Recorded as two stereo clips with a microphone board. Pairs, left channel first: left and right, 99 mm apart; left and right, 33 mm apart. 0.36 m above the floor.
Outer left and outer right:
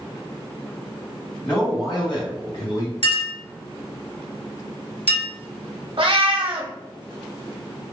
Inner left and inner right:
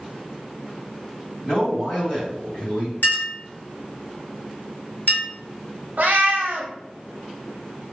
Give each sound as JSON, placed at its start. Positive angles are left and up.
{"t": 1.4, "sound": "a man speaking", "side_deg": 30, "distance_m": 1.8}
{"t": 3.0, "sound": "a clink", "side_deg": 75, "distance_m": 1.6}
{"t": 6.0, "sound": "a cat meowing", "side_deg": -60, "distance_m": 0.8}